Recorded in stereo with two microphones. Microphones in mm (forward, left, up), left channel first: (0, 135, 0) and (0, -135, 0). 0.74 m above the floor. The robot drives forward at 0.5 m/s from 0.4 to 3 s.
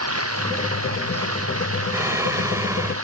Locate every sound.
0.0 s running water: 60° right (ahead or behind)
1.9 s singing: 10° right (ahead or behind)